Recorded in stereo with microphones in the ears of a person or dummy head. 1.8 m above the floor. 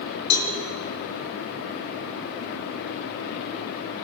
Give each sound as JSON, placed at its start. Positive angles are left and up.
{"t": 0.3, "sound": "a cowbell", "side_deg": 60, "distance_m": 4.0}